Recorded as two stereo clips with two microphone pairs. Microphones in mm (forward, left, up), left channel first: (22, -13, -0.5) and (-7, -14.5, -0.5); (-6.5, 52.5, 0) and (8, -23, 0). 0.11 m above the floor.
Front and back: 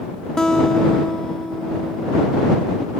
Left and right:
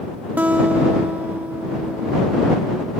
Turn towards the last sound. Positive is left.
turn(degrees=-35)